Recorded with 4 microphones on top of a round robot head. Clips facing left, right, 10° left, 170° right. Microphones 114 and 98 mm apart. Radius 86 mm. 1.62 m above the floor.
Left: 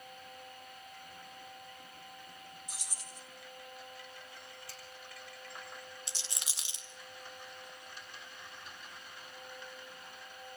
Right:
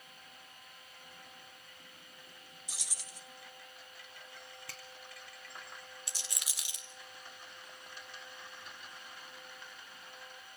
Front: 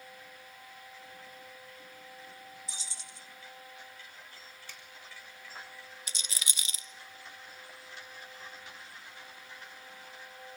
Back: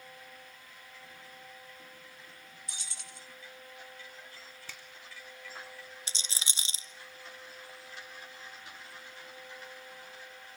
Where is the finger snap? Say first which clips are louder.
Even, back 2 dB; 140° right, 3.5 m.